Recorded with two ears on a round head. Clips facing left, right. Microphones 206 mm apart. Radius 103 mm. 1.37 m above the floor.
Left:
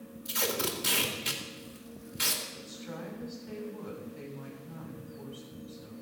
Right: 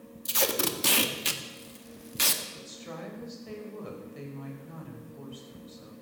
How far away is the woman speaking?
About 5.5 m.